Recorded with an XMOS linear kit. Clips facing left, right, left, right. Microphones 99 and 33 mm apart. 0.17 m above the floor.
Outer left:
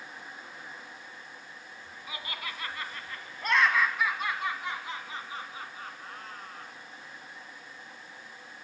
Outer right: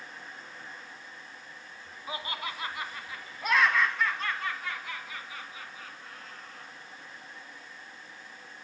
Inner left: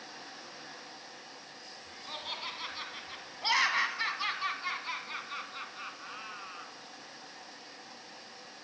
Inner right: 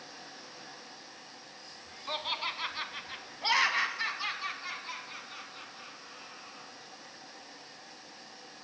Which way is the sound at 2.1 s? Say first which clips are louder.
Outer right 4 dB, inner right 5 dB; 30° right (ahead or behind).